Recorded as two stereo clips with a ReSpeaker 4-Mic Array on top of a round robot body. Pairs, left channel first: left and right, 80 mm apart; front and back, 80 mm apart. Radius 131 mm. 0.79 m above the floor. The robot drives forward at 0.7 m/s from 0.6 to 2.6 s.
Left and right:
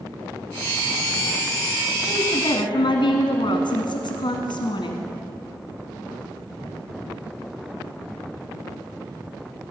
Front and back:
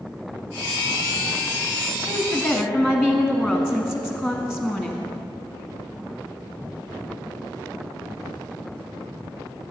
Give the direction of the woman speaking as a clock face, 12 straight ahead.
9 o'clock.